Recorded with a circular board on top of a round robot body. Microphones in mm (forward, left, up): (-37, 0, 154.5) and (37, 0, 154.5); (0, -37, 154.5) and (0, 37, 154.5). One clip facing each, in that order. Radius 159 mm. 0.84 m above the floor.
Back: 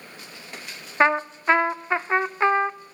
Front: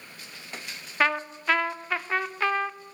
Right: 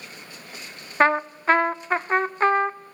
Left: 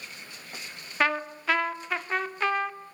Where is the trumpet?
125° right, 0.8 m.